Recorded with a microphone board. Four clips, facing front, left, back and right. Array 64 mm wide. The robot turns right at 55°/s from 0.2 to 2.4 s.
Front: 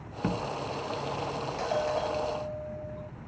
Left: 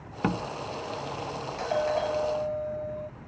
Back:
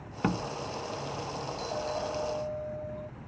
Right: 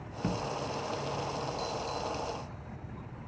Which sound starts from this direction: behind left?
A door slam, at 0.2 s.